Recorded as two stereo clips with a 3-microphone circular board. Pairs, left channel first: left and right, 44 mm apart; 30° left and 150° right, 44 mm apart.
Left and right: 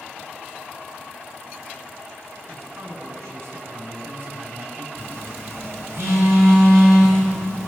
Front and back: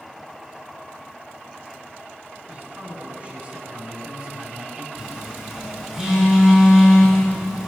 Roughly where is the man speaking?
Right.